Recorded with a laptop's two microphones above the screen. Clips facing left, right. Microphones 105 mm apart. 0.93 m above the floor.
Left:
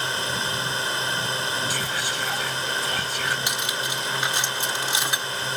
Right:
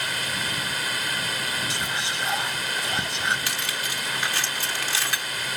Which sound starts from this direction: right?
Whispering, at 1.7 s.